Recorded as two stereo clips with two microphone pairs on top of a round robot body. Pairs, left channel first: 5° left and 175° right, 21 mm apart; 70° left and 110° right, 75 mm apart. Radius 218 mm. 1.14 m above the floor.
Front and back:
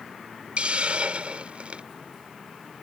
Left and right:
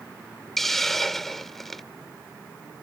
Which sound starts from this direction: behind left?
A hiss, at 0.6 s.